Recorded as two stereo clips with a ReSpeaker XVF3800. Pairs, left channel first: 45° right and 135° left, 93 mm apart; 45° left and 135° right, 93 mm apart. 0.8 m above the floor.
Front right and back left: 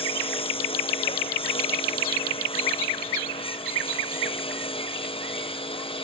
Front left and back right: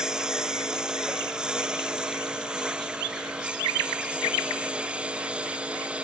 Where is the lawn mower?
55° right.